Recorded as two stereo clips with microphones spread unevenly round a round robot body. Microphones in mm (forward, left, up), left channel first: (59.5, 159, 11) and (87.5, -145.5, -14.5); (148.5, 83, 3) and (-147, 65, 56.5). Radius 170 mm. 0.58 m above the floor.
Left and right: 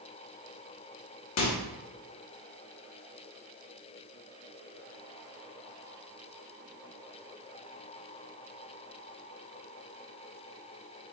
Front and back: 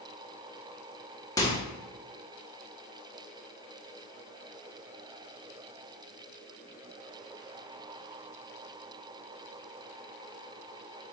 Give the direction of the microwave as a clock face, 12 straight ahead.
10 o'clock.